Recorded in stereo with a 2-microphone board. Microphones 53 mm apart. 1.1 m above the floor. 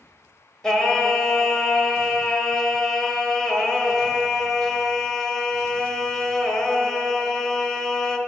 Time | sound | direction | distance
0.6 | singing | 10° left (ahead or behind) | 0.9 m